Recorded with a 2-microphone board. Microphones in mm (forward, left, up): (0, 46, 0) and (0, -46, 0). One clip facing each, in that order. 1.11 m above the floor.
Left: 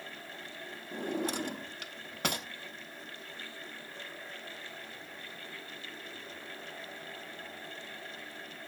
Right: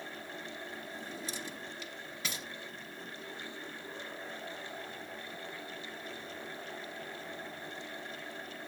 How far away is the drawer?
About 0.9 m.